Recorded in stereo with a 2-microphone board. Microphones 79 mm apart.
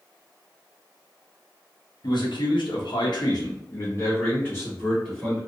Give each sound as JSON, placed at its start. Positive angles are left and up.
{"t": 2.0, "sound": "a man speaking", "side_deg": 65, "distance_m": 0.9}